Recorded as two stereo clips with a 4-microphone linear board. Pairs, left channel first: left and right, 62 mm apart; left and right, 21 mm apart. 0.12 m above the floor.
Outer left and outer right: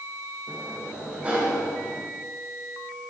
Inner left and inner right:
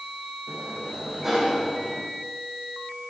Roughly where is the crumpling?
I don't hear crumpling.